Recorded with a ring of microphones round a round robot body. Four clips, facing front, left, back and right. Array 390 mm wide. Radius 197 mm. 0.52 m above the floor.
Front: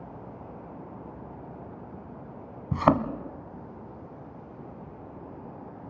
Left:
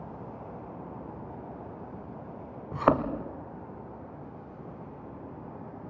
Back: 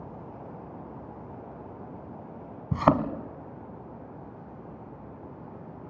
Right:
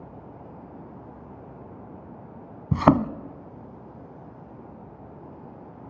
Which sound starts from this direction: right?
A thud, at 2.7 s.